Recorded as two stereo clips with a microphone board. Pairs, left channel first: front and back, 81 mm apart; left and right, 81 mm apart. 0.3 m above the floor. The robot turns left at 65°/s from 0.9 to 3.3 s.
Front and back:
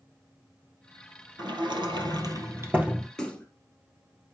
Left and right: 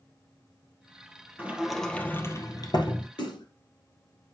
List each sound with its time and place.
1.4 s a sliding door: 155° right, 1.4 m; by 3.1 s 95° left, 1.4 m
3.2 s a splash: 80° left, 1.9 m; by 3.5 s 75° left, 1.9 m